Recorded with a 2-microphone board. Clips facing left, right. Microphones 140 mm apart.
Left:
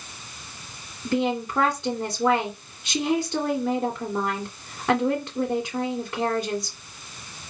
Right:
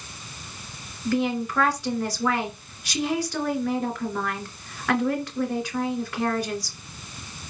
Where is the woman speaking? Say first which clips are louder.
Even; 25° left (ahead or behind), 2.5 m.